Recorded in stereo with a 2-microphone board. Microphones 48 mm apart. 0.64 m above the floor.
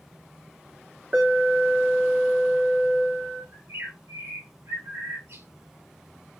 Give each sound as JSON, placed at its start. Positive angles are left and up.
{"t": 1.1, "sound": "an alarm", "side_deg": -35, "distance_m": 1.8}
{"t": 3.5, "sound": "a bird", "side_deg": -75, "distance_m": 1.8}